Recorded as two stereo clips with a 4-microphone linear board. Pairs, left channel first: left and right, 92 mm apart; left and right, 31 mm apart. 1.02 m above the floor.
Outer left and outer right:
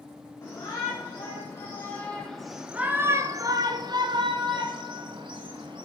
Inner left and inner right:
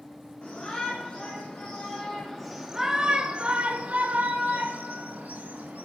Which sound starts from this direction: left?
A shout, at 0.4 s.